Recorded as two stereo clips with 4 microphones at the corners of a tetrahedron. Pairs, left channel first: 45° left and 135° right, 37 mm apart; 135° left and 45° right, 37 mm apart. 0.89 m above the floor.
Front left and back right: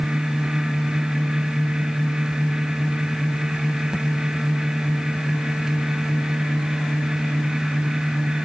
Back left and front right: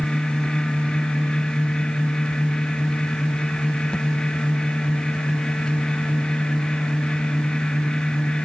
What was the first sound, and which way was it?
Only background noise.